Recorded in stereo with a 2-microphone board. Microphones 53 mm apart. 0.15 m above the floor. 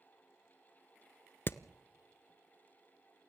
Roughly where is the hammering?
Left.